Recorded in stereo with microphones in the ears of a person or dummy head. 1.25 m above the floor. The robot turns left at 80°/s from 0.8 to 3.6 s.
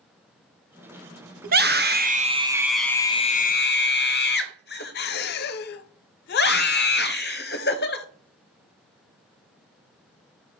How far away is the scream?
About 0.7 m.